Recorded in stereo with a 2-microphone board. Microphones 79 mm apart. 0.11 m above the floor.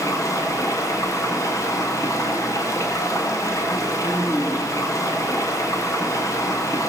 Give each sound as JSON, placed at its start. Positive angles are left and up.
{"t": 0.0, "sound": "running water", "side_deg": 40, "distance_m": 9.0}